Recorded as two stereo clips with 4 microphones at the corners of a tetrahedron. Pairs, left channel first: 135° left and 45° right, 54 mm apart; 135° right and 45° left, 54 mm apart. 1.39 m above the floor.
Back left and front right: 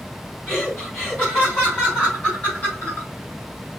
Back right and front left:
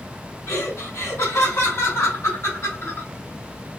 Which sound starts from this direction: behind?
Laughter, at 0.5 s.